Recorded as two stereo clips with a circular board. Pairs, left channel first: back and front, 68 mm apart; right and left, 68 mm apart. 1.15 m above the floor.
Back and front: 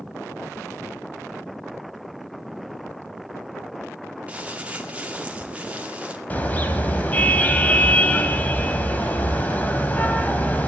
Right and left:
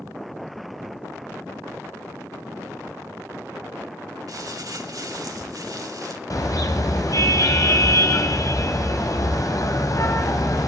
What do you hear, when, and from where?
4.3 s crumpling: 70° left, 2 m
6.3 s a car horn: 115° right, 3.5 m